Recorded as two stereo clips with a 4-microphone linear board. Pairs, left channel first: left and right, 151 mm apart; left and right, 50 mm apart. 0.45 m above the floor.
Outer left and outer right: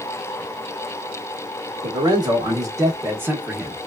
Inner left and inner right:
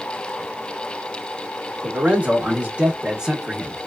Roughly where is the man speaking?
Right.